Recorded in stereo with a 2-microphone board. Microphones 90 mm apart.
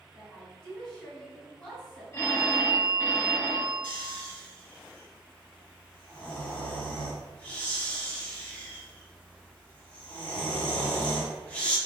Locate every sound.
0.1 s a woman speaking: 10° left (ahead or behind), 1.8 m
2.1 s a phone ringing: 30° left (ahead or behind), 0.9 m
3.8 s snoring: 15° left (ahead or behind), 1.0 m